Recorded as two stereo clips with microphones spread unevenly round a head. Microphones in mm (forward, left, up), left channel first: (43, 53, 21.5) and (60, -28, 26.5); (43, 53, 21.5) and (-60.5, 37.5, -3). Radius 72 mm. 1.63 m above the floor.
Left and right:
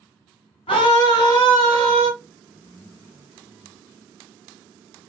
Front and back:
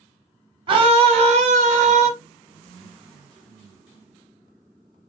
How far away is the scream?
About 0.9 m.